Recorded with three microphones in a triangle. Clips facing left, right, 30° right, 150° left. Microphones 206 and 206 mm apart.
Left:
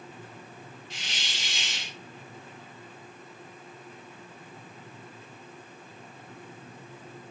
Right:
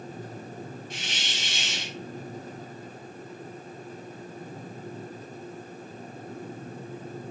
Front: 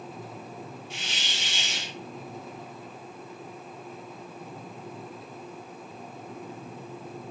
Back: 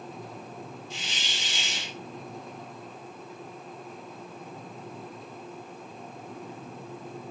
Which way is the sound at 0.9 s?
50° right.